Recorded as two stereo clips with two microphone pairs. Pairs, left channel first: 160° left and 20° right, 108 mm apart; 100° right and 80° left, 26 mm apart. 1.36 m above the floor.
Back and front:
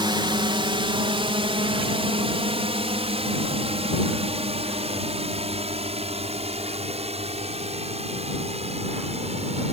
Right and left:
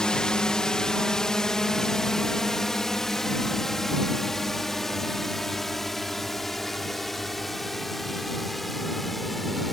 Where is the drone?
50° right; by 9.7 s 15° right.